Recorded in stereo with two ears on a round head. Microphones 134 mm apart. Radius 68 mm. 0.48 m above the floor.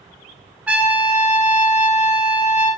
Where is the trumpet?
10° right (ahead or behind), 1.7 m.